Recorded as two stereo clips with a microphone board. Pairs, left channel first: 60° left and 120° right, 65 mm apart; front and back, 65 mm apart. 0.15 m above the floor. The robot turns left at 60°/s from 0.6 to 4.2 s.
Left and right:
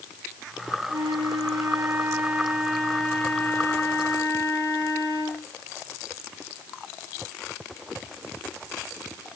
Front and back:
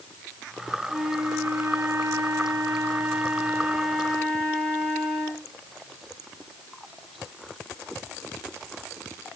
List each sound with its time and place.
0.9 s a flute: 95° right, 3.5 m; by 5.5 s 65° left, 3.5 m